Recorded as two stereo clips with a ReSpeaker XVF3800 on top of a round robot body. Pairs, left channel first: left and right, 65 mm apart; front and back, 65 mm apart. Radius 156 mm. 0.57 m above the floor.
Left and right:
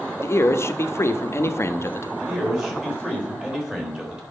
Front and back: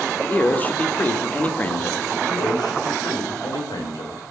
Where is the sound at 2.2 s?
10° right, 3.5 m.